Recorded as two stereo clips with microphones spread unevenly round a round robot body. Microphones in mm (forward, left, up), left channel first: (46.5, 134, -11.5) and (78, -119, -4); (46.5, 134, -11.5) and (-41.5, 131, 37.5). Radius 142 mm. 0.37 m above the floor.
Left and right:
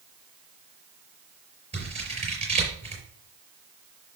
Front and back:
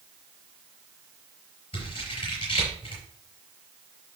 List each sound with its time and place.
1.7 s scissors: 15° right, 5 m